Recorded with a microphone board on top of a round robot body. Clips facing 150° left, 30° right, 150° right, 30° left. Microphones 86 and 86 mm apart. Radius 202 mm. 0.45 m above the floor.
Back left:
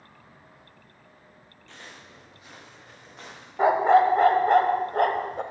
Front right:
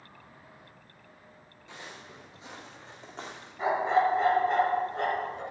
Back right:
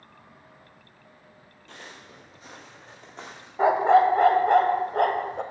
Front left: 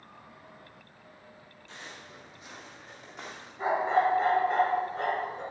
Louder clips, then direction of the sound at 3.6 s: Back left 7 dB, back right 8 dB; 175° right.